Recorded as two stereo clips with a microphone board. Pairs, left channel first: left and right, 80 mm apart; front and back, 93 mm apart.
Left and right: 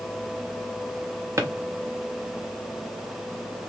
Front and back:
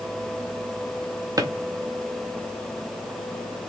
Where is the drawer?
135° right, 0.6 m.